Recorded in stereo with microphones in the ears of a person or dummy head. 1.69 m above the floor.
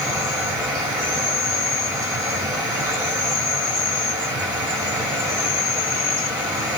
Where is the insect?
10° right (ahead or behind), 1.9 m.